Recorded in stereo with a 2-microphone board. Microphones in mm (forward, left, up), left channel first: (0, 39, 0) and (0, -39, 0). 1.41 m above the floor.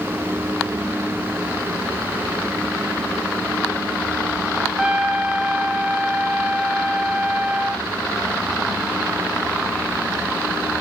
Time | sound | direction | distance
4.8 | a trumpet | 5° right (ahead or behind) | 1.1 m